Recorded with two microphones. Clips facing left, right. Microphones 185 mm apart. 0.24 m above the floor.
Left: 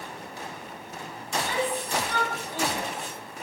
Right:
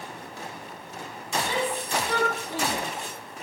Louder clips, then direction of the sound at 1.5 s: Left 1 dB; 75° right (ahead or behind).